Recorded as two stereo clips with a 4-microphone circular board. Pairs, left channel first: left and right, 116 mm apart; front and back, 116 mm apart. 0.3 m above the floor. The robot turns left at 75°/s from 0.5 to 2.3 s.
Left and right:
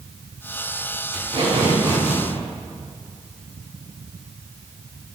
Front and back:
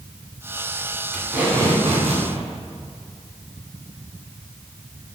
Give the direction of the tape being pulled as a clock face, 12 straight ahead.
3 o'clock.